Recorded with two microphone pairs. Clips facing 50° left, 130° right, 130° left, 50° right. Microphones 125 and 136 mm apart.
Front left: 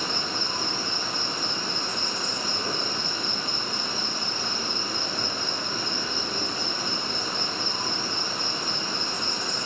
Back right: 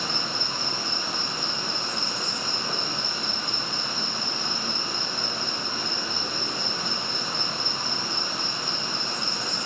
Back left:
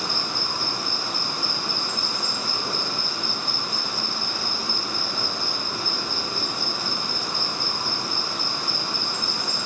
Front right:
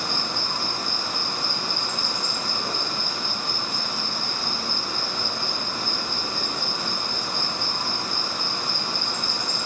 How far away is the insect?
About 1.4 m.